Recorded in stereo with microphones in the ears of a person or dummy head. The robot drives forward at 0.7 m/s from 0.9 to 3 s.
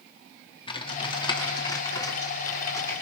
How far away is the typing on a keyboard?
About 2 m.